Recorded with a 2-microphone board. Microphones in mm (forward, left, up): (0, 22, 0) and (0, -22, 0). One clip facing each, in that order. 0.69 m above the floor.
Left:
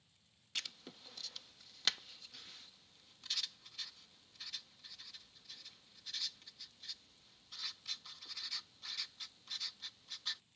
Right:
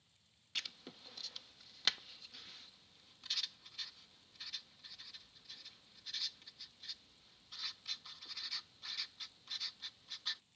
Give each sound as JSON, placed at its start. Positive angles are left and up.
{"t": 0.6, "sound": "writing", "side_deg": -5}